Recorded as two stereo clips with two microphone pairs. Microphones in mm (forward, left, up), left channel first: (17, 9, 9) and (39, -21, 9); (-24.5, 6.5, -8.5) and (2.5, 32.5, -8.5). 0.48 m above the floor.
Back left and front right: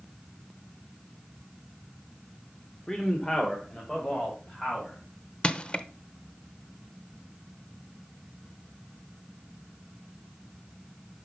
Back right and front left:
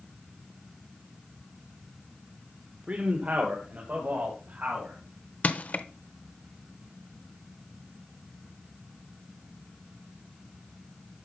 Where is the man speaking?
65° left, 1.2 m.